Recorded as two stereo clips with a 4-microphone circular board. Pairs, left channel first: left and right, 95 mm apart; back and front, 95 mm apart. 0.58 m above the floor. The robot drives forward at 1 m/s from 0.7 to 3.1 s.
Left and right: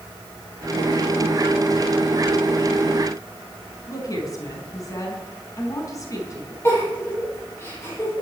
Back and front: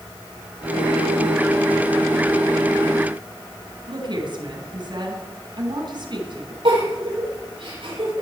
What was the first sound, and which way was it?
A woman speaking, 35° left.